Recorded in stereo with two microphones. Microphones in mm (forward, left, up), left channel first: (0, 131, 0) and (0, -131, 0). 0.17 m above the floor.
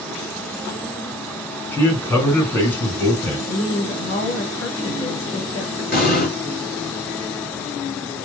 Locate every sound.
1.7 s a man speaking: 5° left (ahead or behind), 1.9 m
3.5 s a woman speaking: 65° left (ahead or behind), 3 m
5.9 s an explosion: 35° left (ahead or behind), 2 m